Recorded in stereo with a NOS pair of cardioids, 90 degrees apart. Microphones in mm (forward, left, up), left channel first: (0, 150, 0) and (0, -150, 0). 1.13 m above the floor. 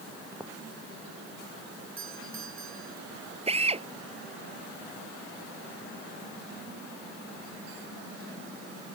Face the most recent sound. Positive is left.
turn(degrees=-20)